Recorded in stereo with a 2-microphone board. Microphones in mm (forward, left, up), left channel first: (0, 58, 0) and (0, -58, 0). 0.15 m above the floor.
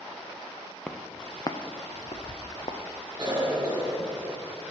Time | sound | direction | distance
0.9 | footsteps | 10° left (ahead or behind) | 0.8 m
3.2 | a cough | 20° right (ahead or behind) | 1.7 m